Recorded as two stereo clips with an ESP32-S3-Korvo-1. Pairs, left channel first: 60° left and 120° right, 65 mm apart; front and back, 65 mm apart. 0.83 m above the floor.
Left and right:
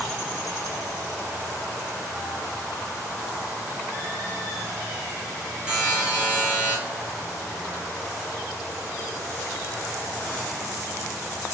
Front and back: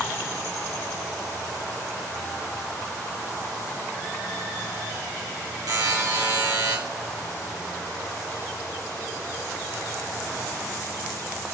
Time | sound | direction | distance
5.7 | a buzzer | 165° left | 1.6 m